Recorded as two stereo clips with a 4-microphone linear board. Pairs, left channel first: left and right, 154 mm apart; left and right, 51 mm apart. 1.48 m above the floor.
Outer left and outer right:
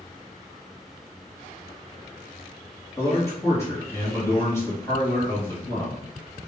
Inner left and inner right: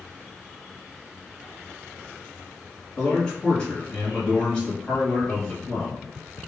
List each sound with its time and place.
3.0 s a man speaking: 20° left (ahead or behind), 1.3 m